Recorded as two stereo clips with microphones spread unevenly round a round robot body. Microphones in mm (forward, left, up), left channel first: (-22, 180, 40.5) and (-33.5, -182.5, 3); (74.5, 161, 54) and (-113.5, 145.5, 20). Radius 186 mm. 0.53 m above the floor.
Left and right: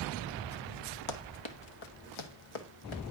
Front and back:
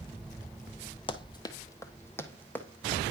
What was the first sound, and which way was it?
Running footsteps, 60° left.